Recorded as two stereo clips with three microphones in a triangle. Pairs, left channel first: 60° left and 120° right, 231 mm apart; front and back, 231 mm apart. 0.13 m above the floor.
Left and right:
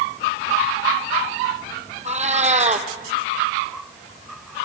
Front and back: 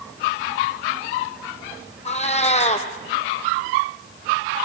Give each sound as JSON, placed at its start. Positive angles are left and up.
{"t": 2.0, "sound": "a cat meowing", "azimuth_deg": -60, "distance_m": 1.1}